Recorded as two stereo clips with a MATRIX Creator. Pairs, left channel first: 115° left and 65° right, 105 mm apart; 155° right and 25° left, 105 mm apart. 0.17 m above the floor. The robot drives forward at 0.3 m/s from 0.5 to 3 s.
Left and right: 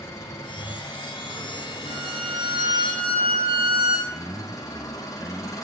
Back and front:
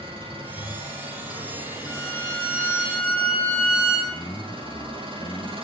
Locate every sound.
0.0 s an engine running: 50° left, 7.5 m; by 5.7 s 55° left, 7.5 m
1.9 s a violin: 80° right, 10 m; by 4.0 s 85° right, 10 m
4.1 s a man speaking: 135° right, 2.5 m